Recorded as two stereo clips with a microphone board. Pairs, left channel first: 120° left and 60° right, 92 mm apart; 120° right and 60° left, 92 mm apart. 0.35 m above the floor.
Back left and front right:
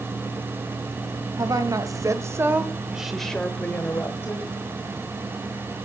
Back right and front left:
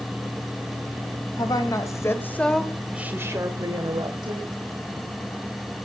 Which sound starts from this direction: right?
A woman speaking, at 1.4 s.